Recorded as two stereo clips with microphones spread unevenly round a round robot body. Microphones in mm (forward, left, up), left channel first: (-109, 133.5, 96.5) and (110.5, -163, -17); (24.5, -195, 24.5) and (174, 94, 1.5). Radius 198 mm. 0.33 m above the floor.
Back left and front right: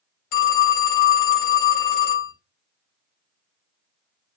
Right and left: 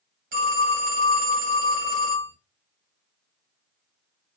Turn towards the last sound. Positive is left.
turn(degrees=90)